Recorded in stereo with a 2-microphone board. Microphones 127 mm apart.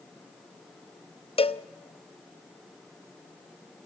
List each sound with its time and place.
1.4 s a cowbell: 45° left (ahead or behind), 0.8 m